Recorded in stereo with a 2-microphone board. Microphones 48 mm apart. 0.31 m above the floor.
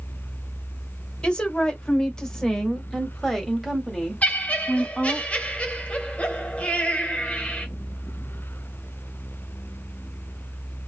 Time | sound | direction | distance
1.2 | a woman speaking | 20° left (ahead or behind) | 1.3 m
4.2 | laughter | 30° left (ahead or behind) | 1.2 m